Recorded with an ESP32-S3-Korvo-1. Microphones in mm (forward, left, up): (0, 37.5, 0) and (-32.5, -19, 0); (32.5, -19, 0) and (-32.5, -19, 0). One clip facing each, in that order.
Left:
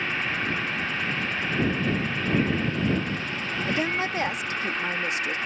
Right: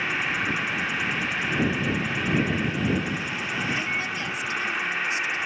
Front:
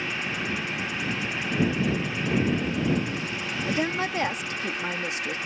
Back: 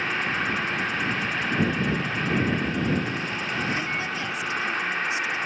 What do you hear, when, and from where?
0.0 s an insect: 165° left
3.6 s a woman speaking: 25° left